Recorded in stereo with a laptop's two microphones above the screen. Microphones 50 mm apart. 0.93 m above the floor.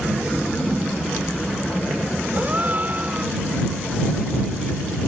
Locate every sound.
2.4 s a gasp: 35° right (ahead or behind)